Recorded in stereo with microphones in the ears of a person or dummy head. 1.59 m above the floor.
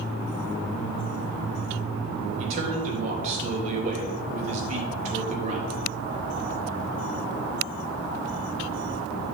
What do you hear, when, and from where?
2.4 s a man speaking: 45° right (ahead or behind), 3.5 m